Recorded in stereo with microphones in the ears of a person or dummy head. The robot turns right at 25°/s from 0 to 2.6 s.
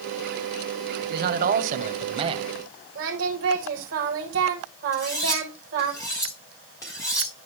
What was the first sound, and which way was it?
A man speaking, 60° right.